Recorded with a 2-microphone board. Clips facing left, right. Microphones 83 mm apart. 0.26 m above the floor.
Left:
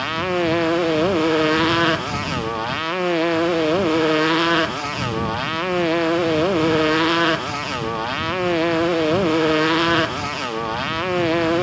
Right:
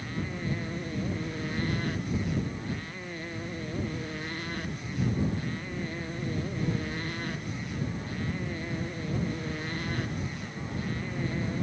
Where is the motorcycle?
80° left.